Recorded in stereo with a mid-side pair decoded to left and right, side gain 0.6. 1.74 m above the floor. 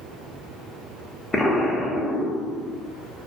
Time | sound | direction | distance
1.3 | an explosion | 20° left | 0.6 m